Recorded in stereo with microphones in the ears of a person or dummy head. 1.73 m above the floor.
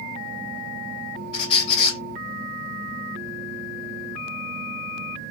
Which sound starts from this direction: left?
A squeak, at 1.3 s.